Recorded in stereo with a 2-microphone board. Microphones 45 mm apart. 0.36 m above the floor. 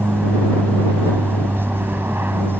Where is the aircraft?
55° right (ahead or behind).